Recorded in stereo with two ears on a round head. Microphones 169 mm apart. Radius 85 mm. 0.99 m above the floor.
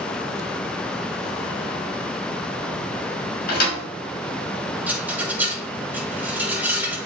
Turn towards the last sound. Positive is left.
turn(degrees=-10)  # may be behind; listen again after turning